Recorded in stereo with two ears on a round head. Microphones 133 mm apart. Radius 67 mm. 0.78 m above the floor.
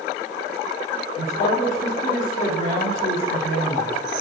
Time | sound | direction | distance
1.2 | a man speaking | 55° left (ahead or behind) | 2.5 m